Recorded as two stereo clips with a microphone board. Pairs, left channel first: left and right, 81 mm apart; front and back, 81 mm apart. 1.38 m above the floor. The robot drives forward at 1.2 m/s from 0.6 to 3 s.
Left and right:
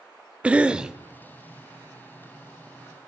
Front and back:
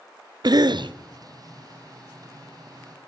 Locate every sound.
0.4 s a cough: 165° right, 0.6 m; by 1.0 s 170° right, 1.0 m